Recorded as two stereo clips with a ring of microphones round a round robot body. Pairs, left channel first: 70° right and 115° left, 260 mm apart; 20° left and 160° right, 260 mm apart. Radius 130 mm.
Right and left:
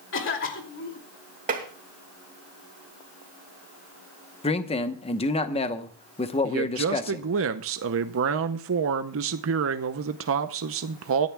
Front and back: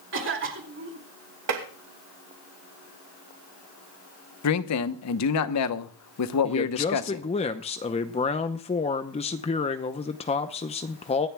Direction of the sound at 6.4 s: 85° left.